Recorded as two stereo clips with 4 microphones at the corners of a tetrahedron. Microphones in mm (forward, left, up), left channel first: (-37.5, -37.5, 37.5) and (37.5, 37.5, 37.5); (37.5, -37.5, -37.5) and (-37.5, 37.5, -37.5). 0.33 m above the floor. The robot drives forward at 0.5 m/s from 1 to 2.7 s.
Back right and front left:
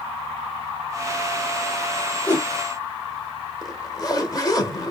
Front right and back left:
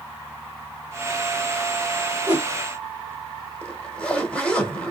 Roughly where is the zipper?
Behind right.